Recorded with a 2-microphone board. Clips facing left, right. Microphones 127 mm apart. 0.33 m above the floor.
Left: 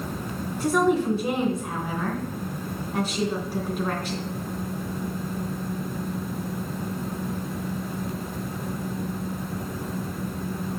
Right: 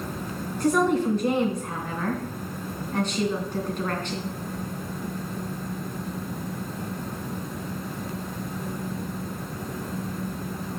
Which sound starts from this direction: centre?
A woman speaking, at 0.6 s.